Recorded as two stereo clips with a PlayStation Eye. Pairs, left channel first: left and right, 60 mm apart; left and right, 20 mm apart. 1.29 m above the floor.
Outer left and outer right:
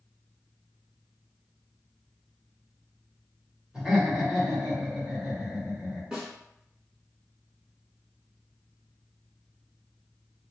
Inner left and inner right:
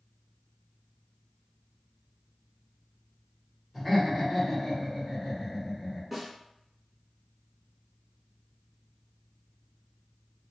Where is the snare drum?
15° right (ahead or behind), 1.1 m.